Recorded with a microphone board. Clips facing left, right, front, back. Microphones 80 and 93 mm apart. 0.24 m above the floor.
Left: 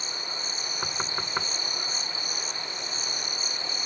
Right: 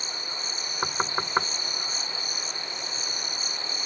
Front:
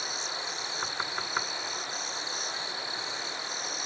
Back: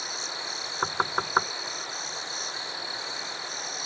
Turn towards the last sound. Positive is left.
turn(degrees=-140)